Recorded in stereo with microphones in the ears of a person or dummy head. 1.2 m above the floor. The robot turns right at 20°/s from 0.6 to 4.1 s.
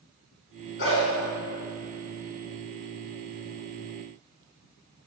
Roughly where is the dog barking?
Left.